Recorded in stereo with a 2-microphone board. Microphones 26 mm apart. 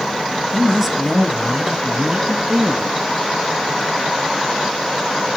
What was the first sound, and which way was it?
A man speaking, 10° right (ahead or behind).